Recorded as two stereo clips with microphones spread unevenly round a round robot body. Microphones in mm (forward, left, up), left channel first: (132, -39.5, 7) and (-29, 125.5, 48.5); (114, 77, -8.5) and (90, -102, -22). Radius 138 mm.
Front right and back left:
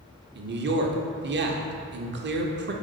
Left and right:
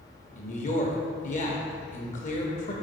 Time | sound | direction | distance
0.3 | a man speaking | 115° left | 0.9 m